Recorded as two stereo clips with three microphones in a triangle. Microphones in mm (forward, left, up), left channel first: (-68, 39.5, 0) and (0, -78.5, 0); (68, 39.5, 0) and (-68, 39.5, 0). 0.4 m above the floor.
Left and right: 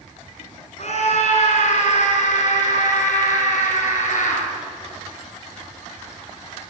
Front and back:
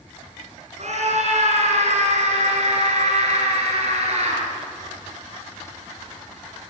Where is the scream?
150° left, 5.5 m; by 4.4 s 140° left, 8 m.